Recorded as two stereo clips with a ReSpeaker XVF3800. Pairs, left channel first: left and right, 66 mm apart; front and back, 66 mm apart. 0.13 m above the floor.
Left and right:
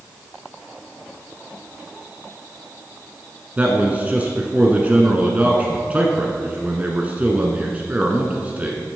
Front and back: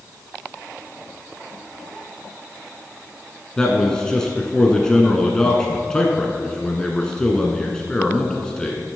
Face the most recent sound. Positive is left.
turn(degrees=-65)